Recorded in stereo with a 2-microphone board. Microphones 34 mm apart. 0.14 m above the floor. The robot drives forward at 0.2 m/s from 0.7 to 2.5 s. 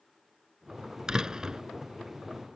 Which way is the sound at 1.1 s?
25° right (ahead or behind).